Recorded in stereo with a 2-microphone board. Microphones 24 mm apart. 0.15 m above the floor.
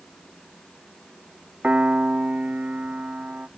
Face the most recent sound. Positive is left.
turn(degrees=-65)  # may be behind; listen again after turning